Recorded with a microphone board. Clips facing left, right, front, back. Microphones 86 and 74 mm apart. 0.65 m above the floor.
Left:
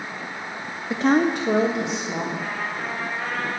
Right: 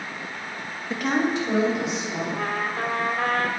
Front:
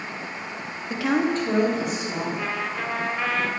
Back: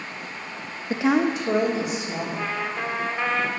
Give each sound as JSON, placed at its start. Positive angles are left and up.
{"t": 0.9, "sound": "a woman speaking", "azimuth_deg": 150, "distance_m": 0.5}
{"t": 2.4, "sound": "a trumpet", "azimuth_deg": -95, "distance_m": 1.0}